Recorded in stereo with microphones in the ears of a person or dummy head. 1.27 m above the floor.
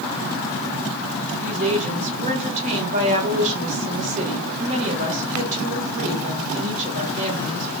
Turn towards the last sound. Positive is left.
turn(degrees=-45)  # may be behind; listen again after turning